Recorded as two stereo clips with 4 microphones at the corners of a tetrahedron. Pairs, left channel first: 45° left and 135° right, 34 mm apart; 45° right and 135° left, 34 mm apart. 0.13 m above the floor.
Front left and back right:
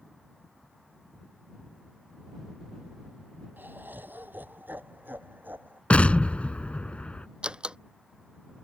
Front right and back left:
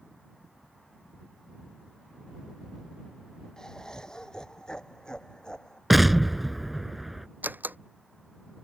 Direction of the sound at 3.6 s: 115° right.